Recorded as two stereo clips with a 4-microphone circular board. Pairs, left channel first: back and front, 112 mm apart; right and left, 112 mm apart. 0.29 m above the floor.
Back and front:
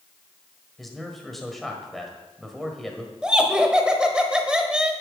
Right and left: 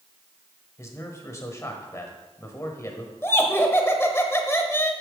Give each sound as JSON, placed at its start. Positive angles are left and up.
{"t": 0.8, "sound": "a man speaking", "azimuth_deg": -90, "distance_m": 1.4}
{"t": 3.2, "sound": "laughter", "azimuth_deg": -70, "distance_m": 1.1}